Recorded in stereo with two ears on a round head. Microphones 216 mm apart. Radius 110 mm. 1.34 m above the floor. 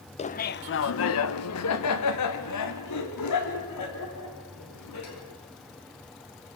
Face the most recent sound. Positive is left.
turn(degrees=75)  # may be behind; listen again after turning